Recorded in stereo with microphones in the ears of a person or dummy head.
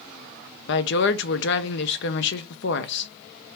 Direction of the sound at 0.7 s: 55° left (ahead or behind).